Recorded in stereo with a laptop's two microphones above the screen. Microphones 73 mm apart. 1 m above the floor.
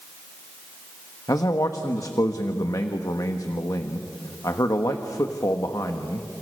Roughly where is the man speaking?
Left.